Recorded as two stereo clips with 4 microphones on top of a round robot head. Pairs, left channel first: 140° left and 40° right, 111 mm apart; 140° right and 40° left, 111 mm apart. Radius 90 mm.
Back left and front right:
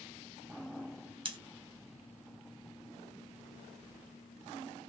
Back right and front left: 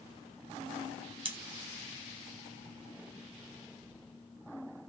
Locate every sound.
1.2 s scissors: straight ahead, 0.9 m